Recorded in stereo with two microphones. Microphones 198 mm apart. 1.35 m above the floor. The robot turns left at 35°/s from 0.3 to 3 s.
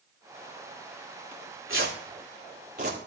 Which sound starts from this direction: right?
Tearing paper, at 1.3 s.